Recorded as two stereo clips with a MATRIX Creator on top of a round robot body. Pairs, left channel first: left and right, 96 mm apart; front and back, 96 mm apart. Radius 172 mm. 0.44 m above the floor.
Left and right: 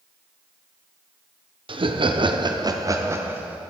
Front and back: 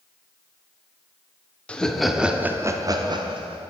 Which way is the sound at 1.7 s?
75° right.